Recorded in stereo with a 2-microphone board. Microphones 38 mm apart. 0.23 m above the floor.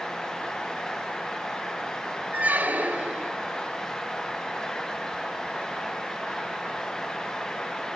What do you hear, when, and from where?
2.3 s a squeak: 45° right (ahead or behind), 1.6 m